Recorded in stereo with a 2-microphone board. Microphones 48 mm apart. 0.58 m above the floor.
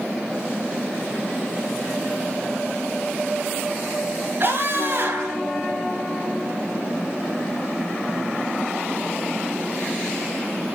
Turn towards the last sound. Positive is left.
turn(degrees=-45)  # may be behind; listen again after turning